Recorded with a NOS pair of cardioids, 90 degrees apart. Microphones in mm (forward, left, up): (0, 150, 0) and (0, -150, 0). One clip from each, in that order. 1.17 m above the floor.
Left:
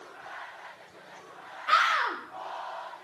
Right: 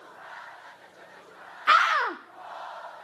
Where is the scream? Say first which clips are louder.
Right 3 dB; 45° right, 0.5 m.